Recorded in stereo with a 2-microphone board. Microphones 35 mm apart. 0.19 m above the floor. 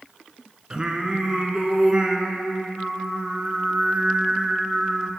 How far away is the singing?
About 1.1 m.